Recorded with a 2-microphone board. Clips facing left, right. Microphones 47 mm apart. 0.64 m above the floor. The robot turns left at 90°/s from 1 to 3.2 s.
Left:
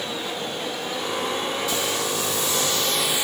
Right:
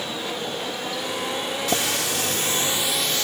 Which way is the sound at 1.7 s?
60° right.